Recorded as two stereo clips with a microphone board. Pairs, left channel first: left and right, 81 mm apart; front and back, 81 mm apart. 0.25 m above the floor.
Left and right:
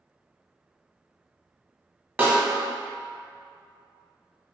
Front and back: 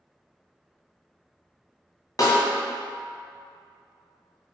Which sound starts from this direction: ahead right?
A snare drum, at 2.2 s.